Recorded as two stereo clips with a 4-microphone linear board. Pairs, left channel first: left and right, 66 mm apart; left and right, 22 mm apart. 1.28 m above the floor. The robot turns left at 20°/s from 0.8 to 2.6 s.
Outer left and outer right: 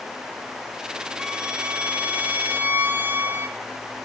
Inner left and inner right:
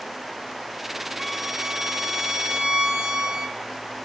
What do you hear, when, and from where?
1.2 s a violin: 15° right (ahead or behind), 1.2 m; by 3.6 s 30° right (ahead or behind), 1.2 m